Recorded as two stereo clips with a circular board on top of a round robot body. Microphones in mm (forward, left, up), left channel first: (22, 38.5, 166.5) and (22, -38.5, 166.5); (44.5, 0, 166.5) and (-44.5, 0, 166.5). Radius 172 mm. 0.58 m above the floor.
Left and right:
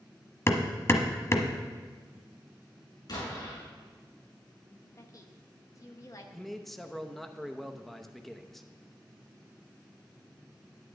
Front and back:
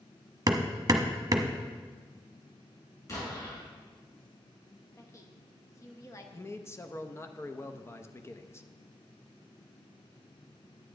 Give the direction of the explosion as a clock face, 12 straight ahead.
10 o'clock.